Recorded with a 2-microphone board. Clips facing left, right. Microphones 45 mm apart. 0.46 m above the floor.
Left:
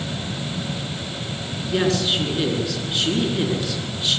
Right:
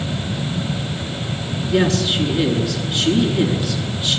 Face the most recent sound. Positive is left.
turn(degrees=0)  # may be behind; listen again after turning